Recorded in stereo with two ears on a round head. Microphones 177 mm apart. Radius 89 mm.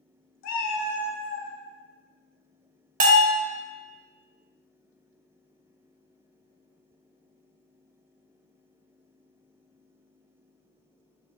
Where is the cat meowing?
70° left (ahead or behind), 0.7 m.